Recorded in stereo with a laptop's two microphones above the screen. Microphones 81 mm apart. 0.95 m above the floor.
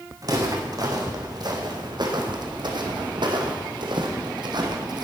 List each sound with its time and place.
0.2 s footsteps: 50° right (ahead or behind), 3.5 m; by 5.0 s 60° right (ahead or behind), 2.5 m